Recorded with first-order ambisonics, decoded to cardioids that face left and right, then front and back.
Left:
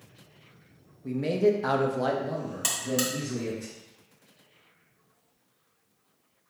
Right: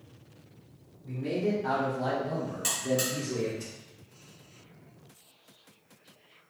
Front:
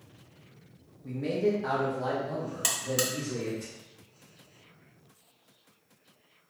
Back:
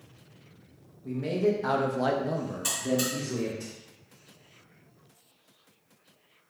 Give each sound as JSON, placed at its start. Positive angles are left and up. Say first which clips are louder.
{"t": 1.0, "sound": "a man speaking", "louder": "left 6 dB, back 1 dB", "azimuth_deg": 85, "distance_m": 0.9}
{"t": 2.6, "sound": "a buzzer", "louder": "left 1 dB, even", "azimuth_deg": 30, "distance_m": 0.9}